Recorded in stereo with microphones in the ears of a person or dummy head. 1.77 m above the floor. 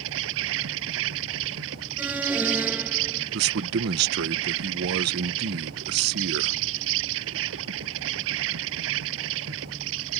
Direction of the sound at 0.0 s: 70° right (ahead or behind).